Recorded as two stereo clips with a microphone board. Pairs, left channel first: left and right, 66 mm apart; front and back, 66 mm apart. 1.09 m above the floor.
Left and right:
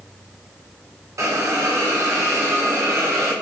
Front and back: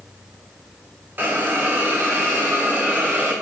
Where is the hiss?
120° right, 0.7 m.